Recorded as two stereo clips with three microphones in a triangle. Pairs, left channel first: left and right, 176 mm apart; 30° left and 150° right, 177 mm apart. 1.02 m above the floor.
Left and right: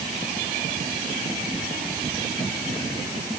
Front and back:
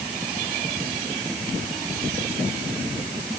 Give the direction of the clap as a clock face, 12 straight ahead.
I don't hear a clap.